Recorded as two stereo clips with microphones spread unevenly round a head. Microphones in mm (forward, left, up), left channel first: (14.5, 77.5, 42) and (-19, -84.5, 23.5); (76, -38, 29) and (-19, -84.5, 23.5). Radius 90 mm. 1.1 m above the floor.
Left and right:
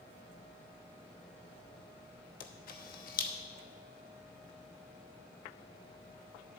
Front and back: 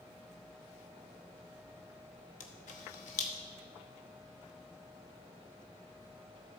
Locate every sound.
2.4 s a camera shutter: 40° left, 0.9 m